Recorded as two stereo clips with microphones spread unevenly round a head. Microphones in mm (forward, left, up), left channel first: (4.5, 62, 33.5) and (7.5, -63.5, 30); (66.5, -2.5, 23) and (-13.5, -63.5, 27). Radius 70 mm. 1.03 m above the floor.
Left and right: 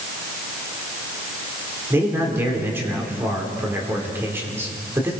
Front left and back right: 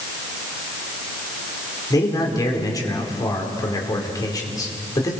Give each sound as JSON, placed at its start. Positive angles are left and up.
{"t": 1.9, "sound": "a man speaking", "azimuth_deg": -15, "distance_m": 4.0}